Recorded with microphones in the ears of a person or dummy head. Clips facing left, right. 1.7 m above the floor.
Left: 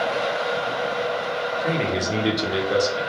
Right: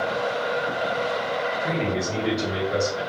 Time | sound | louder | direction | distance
1.6 | a man speaking | left 4 dB | 60° left (ahead or behind) | 0.8 m